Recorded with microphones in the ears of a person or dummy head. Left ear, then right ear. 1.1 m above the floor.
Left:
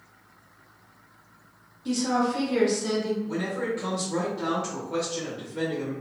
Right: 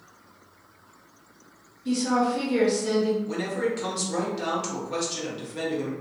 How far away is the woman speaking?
About 1.1 m.